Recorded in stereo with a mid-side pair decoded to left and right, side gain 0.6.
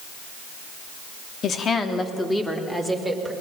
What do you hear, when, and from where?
1.4 s a woman speaking: 45° left, 2 m; by 3.3 s 5° right, 4 m